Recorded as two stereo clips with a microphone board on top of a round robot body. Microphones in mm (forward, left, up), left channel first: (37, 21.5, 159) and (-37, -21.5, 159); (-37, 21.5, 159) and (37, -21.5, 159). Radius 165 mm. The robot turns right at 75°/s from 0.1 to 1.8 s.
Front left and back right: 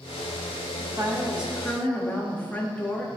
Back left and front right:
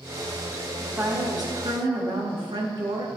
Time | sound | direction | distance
0.8 | a woman speaking | 115° right | 2.0 m